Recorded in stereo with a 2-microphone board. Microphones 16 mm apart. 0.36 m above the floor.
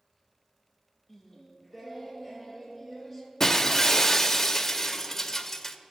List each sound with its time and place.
1.1 s singing: 5° right (ahead or behind), 5 m
3.4 s breaking glass: 25° left (ahead or behind), 0.7 m